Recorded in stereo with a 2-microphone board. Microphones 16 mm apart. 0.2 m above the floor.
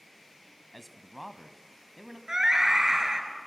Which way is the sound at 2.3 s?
40° right (ahead or behind).